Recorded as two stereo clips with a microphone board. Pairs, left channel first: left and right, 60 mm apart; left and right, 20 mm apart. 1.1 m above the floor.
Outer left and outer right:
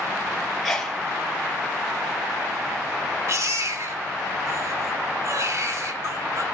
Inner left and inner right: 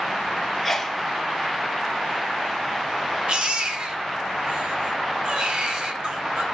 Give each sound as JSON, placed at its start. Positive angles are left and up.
{"t": 0.6, "sound": "a sneeze", "side_deg": 5, "distance_m": 2.0}
{"t": 3.3, "sound": "a baby crying", "side_deg": -50, "distance_m": 2.5}